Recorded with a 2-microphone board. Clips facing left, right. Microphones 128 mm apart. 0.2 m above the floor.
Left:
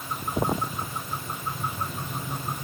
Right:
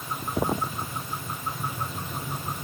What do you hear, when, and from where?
Only background noise.